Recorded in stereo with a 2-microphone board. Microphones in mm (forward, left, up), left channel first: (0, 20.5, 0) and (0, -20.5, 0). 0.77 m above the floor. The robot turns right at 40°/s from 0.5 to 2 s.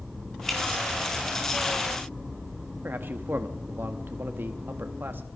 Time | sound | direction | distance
0.5 | dripping | centre (ahead or behind) | 3 m
2.8 | a man speaking | 55° right (ahead or behind) | 0.9 m